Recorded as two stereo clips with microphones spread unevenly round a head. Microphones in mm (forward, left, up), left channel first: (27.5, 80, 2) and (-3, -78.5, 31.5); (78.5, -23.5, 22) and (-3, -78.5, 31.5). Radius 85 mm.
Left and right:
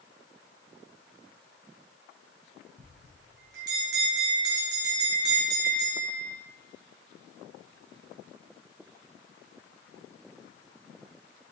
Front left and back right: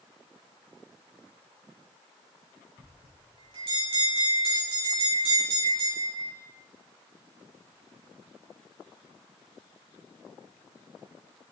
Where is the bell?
125° right, 7 m.